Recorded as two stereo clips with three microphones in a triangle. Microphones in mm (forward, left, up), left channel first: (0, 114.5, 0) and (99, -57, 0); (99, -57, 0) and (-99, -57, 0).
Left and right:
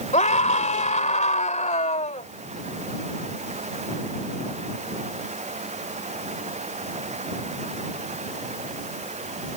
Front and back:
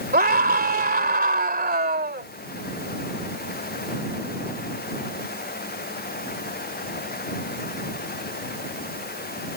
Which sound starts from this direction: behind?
A scream, at 0.1 s.